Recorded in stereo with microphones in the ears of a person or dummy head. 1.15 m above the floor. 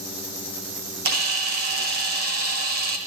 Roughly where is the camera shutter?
Right.